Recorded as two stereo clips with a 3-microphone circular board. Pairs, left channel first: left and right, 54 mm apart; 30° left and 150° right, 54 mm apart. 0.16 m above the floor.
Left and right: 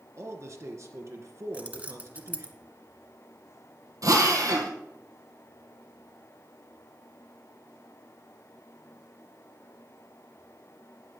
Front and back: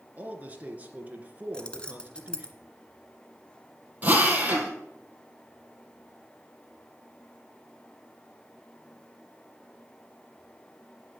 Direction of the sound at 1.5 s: 35° right.